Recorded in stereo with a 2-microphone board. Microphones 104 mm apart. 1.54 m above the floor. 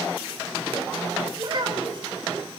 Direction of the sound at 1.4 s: 50° right (ahead or behind).